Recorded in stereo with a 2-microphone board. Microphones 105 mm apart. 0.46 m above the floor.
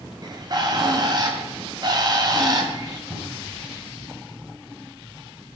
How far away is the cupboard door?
About 3.5 m.